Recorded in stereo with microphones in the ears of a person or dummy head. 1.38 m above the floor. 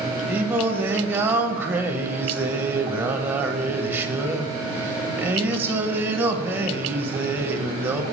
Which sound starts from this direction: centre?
Singing, at 0.3 s.